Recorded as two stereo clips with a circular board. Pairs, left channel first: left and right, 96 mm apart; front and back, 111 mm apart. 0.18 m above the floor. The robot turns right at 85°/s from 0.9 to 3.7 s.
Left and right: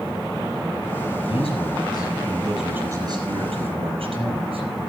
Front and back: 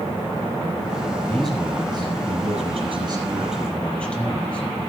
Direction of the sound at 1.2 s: 70° left.